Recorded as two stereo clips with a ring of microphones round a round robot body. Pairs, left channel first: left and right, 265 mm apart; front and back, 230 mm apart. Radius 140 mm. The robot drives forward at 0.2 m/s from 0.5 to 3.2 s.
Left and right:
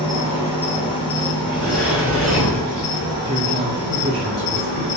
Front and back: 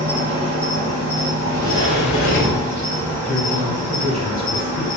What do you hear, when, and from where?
0.0 s an insect: 160° left, 0.9 m; by 5.0 s 165° left, 1.4 m
1.4 s a sliding door: 165° right, 1.6 m; by 3.1 s 170° right, 1.8 m
3.2 s a man speaking: 85° right, 0.9 m